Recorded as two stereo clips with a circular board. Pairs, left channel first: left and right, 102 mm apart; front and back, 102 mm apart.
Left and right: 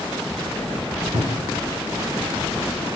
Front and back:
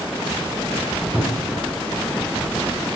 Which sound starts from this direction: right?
A cupboard door, at 1.1 s.